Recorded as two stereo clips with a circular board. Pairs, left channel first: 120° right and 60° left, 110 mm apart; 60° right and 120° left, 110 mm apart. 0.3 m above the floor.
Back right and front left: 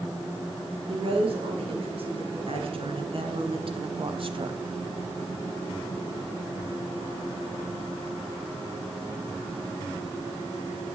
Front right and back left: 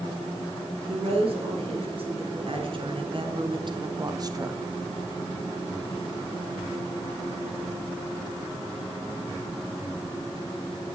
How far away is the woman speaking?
About 5.5 m.